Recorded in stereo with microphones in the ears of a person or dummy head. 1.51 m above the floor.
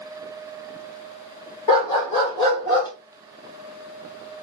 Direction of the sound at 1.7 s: 30° left (ahead or behind).